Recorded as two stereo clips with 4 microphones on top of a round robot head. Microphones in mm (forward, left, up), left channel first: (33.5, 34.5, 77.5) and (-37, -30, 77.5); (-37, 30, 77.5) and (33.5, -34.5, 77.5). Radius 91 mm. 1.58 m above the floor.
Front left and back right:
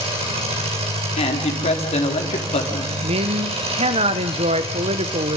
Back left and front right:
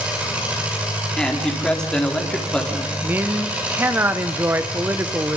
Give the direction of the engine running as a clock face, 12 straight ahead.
4 o'clock.